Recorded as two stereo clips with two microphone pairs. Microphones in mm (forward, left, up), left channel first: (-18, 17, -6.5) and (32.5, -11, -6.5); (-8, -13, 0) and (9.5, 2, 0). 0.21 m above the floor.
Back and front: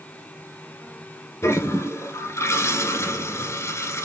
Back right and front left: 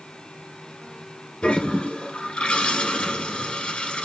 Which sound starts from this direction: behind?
A toilet flushing, at 1.4 s.